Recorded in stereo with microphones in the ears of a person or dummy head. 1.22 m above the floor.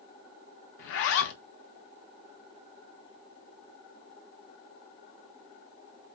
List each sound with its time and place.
0.8 s a zipper: 65° left (ahead or behind), 0.5 m